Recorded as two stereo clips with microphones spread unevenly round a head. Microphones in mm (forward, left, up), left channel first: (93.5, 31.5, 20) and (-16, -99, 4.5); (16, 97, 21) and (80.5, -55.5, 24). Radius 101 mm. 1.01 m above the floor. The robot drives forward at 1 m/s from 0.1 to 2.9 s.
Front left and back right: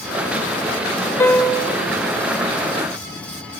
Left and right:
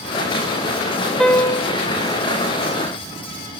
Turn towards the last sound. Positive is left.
turn(degrees=175)